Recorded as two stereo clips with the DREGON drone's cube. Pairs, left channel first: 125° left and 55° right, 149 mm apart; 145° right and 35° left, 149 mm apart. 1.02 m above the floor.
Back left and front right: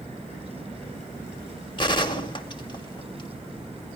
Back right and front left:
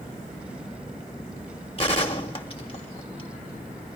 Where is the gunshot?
175° left, 1.2 m.